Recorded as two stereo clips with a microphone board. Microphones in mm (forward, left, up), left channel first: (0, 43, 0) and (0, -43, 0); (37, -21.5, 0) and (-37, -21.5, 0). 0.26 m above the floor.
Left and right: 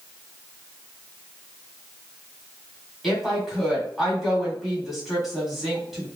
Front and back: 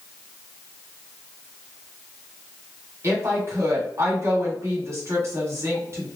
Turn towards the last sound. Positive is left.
turn(degrees=-175)